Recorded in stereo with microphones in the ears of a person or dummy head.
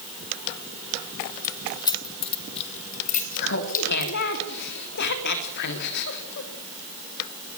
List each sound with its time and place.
1.4 s keys jangling: 15° left (ahead or behind), 2.0 m; by 4.4 s 55° left (ahead or behind), 3.5 m
3.4 s laughter: 60° left (ahead or behind), 3.5 m